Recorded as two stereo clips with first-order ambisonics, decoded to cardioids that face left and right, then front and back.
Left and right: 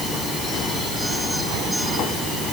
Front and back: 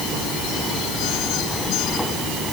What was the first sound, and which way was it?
Only background noise.